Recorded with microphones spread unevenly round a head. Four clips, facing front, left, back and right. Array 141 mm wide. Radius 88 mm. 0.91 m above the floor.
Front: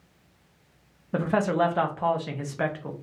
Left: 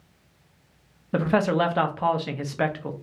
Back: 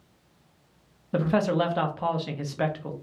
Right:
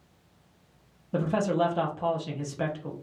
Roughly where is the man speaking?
Ahead left.